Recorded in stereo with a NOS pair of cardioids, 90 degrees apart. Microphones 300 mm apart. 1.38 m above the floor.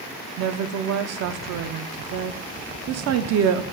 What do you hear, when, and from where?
0.4 s a woman speaking: 60° right, 0.6 m